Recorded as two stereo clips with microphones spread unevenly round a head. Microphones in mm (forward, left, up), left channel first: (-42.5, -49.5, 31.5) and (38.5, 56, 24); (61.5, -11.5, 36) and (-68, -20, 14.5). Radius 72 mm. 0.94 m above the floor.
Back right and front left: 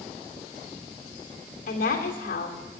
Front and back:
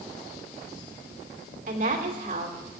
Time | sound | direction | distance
1.7 | a woman speaking | 155° right | 2.5 m